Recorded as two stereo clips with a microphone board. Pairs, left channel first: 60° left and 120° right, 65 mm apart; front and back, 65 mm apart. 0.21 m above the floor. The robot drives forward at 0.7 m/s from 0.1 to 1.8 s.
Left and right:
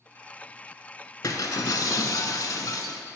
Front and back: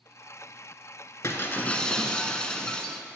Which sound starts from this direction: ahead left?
Breaking glass, at 1.2 s.